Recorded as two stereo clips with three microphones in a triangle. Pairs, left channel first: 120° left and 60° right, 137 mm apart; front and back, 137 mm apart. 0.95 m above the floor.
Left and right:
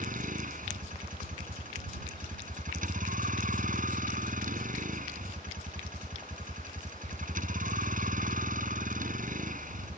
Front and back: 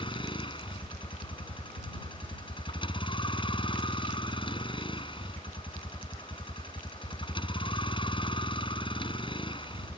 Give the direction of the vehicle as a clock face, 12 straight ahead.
2 o'clock.